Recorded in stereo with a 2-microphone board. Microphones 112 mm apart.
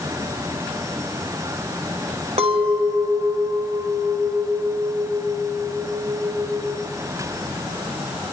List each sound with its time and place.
2.4 s a clink: 75° right (ahead or behind), 3.5 m